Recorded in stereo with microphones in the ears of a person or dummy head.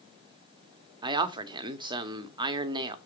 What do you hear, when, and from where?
1.0 s a man speaking: 20° right (ahead or behind), 0.6 m